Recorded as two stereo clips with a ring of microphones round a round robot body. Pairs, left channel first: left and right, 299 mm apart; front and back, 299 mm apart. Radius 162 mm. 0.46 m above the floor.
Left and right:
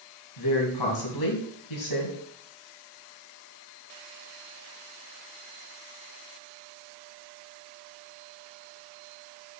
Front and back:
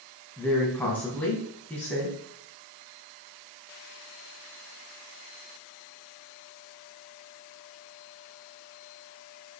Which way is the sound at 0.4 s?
85° left.